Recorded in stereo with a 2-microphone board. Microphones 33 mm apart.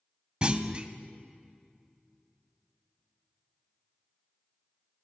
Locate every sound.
0.4 s a clunk: 30° right (ahead or behind), 0.6 m